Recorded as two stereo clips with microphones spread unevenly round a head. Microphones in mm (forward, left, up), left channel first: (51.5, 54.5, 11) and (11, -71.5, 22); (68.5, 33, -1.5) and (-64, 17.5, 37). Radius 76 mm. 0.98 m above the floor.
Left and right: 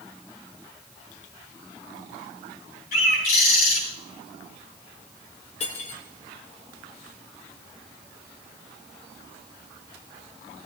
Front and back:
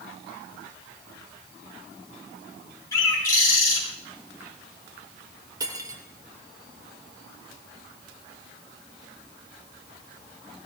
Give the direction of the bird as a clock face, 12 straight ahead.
10 o'clock.